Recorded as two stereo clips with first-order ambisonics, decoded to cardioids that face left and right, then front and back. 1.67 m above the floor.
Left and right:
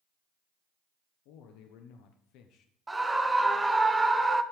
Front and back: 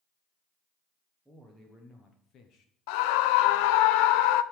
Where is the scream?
5° right, 0.7 m.